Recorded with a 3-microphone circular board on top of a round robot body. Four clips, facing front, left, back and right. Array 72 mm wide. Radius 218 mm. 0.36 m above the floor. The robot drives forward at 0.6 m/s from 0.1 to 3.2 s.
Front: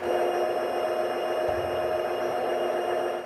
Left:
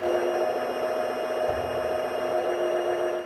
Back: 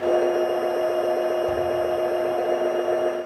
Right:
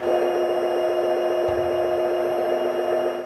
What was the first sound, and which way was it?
A whoosh, 90° right.